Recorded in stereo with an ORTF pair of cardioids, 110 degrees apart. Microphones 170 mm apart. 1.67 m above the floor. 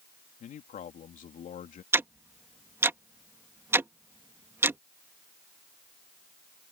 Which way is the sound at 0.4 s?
50° left.